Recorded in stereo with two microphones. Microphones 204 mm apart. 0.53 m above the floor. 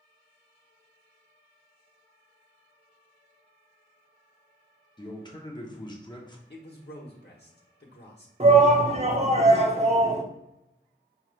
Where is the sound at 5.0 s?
20° left (ahead or behind), 0.7 m.